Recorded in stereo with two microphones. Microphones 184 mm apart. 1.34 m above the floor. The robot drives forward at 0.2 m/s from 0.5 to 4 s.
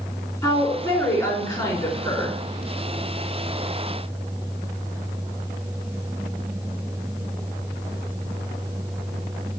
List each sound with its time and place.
0.4 s a woman speaking: 20° left (ahead or behind), 5 m